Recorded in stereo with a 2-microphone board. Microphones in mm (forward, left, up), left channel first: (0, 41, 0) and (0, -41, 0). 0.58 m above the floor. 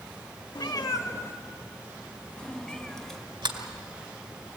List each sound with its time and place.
0.6 s a cat meowing: 65° left (ahead or behind), 0.8 m; by 3.2 s 5° left (ahead or behind), 2.5 m
3.4 s a sliding door: 85° right, 2 m